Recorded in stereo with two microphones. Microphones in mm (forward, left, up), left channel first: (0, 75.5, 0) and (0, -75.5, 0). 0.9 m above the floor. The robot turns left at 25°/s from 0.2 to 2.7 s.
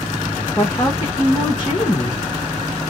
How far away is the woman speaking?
About 1.2 m.